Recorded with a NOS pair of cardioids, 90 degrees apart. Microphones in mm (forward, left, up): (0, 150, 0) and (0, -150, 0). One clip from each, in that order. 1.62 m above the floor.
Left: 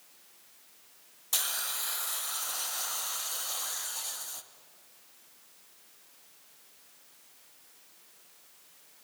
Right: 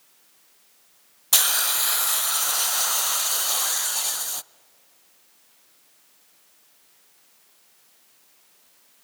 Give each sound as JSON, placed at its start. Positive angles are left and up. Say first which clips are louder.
{"t": 1.3, "sound": "a hiss", "louder": "right 11 dB", "azimuth_deg": -45, "distance_m": 0.5}